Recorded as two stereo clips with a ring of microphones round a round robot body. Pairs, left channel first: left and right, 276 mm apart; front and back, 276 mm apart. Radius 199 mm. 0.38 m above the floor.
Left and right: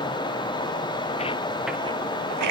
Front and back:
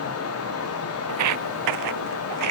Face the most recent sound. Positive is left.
turn(degrees=-130)